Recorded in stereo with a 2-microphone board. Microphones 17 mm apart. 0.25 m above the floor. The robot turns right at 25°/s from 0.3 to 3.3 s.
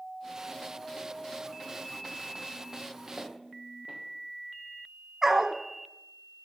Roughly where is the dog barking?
Right.